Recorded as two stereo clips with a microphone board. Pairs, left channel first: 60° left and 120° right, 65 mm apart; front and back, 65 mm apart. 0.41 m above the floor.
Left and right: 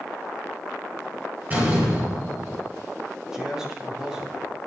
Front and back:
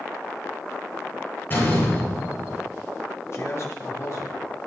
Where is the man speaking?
40° right, 3 m.